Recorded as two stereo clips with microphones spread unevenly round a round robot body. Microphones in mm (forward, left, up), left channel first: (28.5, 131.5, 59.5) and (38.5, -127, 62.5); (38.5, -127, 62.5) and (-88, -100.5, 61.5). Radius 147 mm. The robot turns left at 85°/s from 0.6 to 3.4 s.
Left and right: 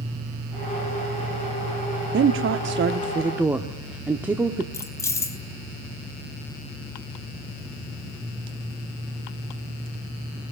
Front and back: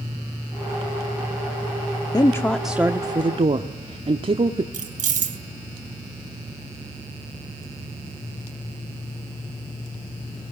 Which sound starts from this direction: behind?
Keys jangling, at 4.7 s.